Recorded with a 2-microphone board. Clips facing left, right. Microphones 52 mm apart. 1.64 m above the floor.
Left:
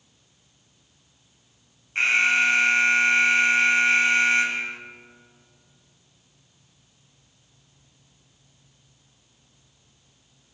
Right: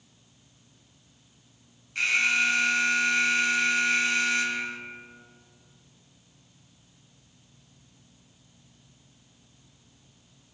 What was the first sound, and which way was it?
An alarm, 35° left (ahead or behind).